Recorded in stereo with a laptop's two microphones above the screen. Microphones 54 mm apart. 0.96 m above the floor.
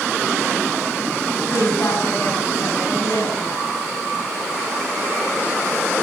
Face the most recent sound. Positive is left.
turn(degrees=60)  # may be behind; listen again after turning